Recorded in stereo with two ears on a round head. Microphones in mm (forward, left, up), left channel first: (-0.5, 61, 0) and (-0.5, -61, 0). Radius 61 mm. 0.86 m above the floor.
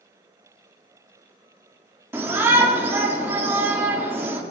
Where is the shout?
15° right (ahead or behind), 1.9 m.